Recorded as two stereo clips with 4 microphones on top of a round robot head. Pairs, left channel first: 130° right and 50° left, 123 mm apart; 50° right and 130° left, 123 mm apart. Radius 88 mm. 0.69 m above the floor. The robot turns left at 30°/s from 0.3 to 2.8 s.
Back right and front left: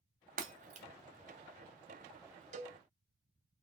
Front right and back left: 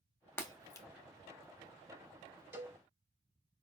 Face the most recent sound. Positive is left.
turn(degrees=50)